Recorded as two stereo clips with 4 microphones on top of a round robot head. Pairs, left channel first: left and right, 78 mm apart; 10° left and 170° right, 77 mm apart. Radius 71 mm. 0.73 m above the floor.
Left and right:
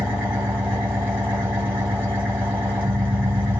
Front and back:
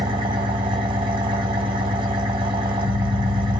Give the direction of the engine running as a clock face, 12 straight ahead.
6 o'clock.